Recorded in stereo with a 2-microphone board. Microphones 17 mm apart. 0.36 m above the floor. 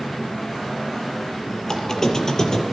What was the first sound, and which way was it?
A squeak, 35° left (ahead or behind).